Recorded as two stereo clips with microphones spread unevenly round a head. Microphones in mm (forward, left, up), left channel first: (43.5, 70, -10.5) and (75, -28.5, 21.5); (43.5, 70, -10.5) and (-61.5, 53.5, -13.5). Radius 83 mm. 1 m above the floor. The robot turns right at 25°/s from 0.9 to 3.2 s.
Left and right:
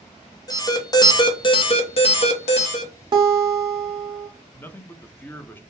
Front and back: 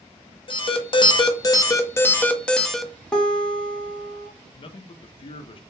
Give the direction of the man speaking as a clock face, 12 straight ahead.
11 o'clock.